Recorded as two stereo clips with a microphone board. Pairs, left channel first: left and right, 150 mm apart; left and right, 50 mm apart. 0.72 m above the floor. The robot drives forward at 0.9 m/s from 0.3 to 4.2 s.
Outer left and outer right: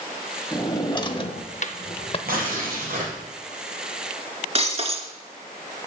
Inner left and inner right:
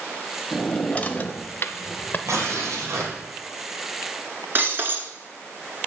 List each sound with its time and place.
0.5 s a drawer: 20° left (ahead or behind), 1.2 m; by 2.2 s 40° left (ahead or behind), 0.7 m
2.3 s tearing paper: 80° right, 3.5 m; by 3.1 s 65° right (ahead or behind), 3.5 m
4.5 s breaking glass: 45° right (ahead or behind), 1.1 m